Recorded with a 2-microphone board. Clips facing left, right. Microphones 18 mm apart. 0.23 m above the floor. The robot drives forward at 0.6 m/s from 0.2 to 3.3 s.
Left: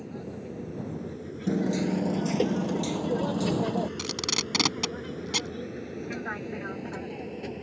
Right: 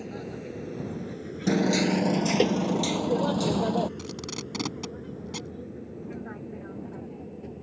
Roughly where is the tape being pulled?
Left.